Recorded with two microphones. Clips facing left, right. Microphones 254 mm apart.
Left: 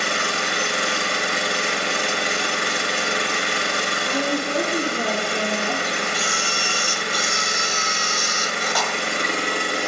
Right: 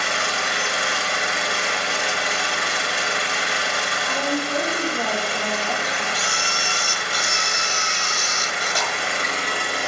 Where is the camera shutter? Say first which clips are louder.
Left 2 dB; 25° right (ahead or behind), 1.0 m.